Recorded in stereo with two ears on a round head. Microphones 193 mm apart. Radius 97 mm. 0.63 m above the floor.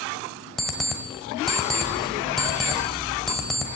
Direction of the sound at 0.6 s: Centre (ahead or behind).